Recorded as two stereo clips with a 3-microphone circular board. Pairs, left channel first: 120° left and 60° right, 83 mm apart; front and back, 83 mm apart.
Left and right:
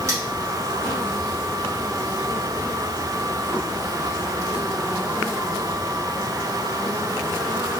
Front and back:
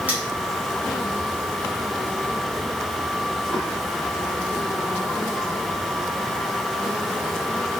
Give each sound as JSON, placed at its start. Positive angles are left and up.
{"t": 0.1, "sound": "cutlery clinking", "azimuth_deg": -110, "distance_m": 1.8}